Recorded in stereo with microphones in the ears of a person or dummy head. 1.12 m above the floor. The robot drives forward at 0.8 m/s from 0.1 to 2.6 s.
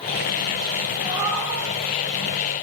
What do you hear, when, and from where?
1.0 s a cat meowing: 10° right (ahead or behind), 1.1 m; by 1.6 s 5° right (ahead or behind), 1.5 m